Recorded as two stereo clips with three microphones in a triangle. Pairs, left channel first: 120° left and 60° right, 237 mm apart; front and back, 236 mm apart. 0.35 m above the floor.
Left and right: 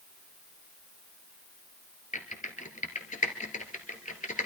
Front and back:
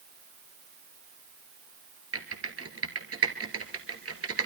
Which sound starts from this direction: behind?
Typing on a keyboard, at 2.1 s.